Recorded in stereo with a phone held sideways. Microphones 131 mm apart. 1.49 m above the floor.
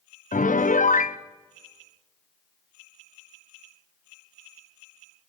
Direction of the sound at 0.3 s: 85° left.